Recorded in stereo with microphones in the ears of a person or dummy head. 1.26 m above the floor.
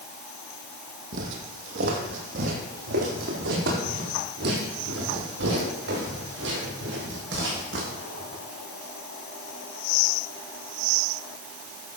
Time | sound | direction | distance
1.1 | footsteps | 50° right (ahead or behind) | 2.5 m